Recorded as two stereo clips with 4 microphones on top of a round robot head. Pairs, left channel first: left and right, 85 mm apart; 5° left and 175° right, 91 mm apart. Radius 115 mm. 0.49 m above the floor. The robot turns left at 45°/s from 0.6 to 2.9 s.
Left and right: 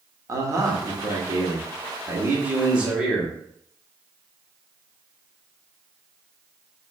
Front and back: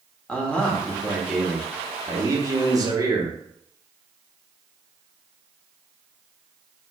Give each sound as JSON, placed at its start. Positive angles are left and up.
{"t": 0.3, "sound": "a man speaking", "azimuth_deg": -65, "distance_m": 1.3}